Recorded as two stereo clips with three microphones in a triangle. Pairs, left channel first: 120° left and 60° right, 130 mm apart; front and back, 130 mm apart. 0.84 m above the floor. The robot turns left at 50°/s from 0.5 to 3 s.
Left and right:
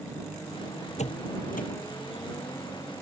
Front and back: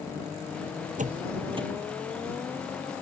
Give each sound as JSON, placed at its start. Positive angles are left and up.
{"t": 1.0, "sound": "a door slam", "azimuth_deg": 155}